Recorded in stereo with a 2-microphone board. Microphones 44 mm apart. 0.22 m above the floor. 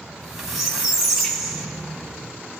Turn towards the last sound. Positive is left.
turn(degrees=-5)  # may be behind; listen again after turning